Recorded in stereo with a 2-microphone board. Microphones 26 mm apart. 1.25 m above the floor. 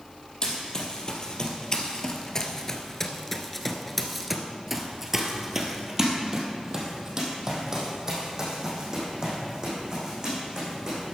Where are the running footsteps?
30° left (ahead or behind), 2.5 m; by 11.1 s 30° right (ahead or behind), 5.5 m.